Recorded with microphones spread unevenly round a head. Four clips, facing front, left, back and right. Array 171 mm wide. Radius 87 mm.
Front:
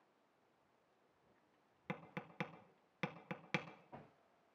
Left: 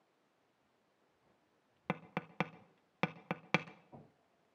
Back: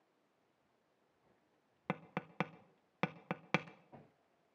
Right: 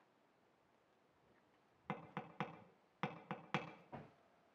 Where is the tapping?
80° left, 0.6 m.